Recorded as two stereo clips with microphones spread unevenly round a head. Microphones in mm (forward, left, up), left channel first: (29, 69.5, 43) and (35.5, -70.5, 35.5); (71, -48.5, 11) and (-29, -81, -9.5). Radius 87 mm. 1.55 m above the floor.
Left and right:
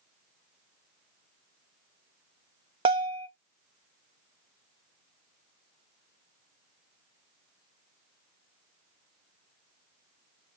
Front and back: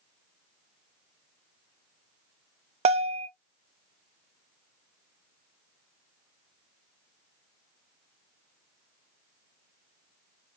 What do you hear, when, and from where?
2.9 s a bell: 145° right, 0.6 m